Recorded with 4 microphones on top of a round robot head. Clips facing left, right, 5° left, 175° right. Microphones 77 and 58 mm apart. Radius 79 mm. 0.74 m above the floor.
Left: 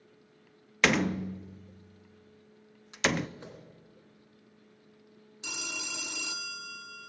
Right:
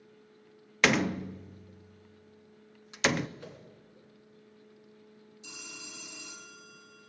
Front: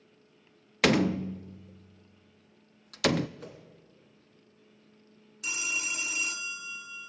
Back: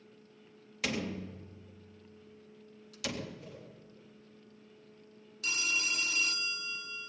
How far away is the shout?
No shout in this recording.